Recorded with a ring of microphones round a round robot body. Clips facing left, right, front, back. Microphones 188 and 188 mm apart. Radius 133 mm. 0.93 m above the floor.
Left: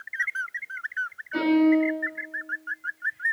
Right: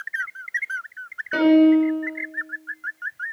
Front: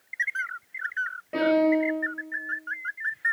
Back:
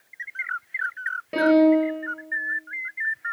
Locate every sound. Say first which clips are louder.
1.3 s a piano: right 5 dB, back 5 dB; 115° right, 5 m